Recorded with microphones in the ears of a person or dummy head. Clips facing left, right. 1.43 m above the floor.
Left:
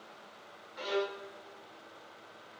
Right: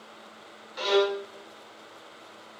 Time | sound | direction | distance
0.8 | a violin | 70° right (ahead or behind) | 0.6 m